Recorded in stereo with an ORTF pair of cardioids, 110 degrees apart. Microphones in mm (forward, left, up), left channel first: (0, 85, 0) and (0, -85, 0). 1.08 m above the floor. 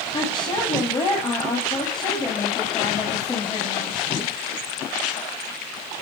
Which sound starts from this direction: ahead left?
A woman speaking, at 0.1 s.